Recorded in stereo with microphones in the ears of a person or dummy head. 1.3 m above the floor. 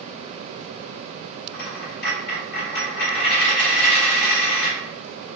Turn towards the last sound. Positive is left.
turn(degrees=65)  # may be behind; listen again after turning